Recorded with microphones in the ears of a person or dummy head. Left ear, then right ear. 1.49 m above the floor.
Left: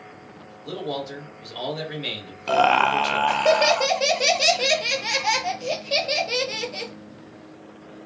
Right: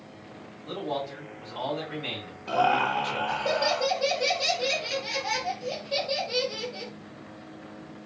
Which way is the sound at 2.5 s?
50° left (ahead or behind).